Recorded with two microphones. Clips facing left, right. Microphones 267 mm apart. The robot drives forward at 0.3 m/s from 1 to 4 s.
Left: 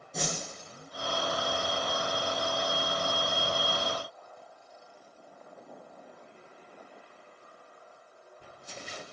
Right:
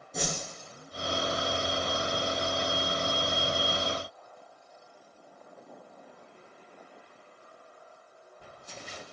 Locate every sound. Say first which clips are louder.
0.1 s a whoosh: right 1 dB; centre (ahead or behind), 0.8 m